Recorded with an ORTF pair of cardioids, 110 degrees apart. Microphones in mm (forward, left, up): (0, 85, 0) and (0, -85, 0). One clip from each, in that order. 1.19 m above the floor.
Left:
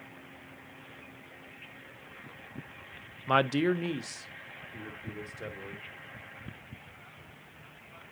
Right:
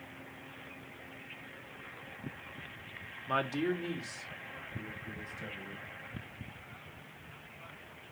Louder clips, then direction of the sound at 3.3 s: Left 6 dB; 45° left.